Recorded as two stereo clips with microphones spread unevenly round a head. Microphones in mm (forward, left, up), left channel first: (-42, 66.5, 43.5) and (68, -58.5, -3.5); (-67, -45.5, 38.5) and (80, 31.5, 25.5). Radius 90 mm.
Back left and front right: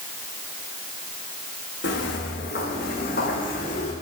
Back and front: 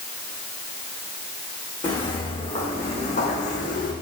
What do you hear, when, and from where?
1.8 s footsteps: 145° left, 6 m; by 3.9 s 170° left, 4.5 m